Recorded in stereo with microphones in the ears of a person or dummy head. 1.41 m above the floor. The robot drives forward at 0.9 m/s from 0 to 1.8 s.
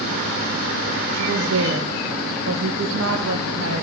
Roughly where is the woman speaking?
Right.